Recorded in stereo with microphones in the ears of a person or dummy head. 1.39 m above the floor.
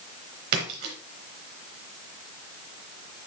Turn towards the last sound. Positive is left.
turn(degrees=-55)  # may be behind; listen again after turning